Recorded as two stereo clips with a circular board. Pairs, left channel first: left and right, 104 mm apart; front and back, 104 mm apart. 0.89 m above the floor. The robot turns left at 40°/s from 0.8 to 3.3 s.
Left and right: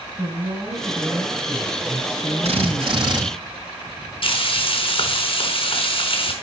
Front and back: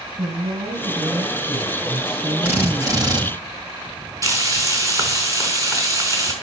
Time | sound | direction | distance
0.2 | a woman speaking | 155° right | 6 m
2.4 | a drill | 105° right | 5.5 m
4.2 | frying | 120° left | 4 m